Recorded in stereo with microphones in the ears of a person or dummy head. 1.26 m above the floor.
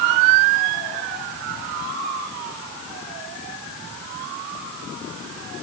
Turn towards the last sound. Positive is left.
No sound to turn to.